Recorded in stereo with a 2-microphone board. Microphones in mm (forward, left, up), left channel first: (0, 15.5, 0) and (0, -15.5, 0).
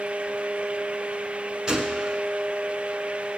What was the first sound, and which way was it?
A gunshot, 25° right (ahead or behind).